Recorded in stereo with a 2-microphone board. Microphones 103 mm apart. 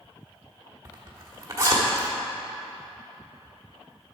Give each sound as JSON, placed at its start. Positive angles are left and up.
{"t": 0.8, "sound": "a zipper", "side_deg": -30, "distance_m": 1.6}